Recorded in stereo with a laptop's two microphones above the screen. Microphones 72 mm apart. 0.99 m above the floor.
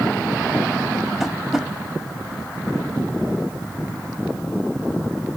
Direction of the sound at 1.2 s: 5° right (ahead or behind).